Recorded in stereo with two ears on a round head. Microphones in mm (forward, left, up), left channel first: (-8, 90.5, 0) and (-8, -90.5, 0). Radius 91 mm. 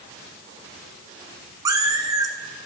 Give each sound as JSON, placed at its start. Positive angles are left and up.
{"t": 1.6, "sound": "a cat meowing", "side_deg": -20, "distance_m": 1.7}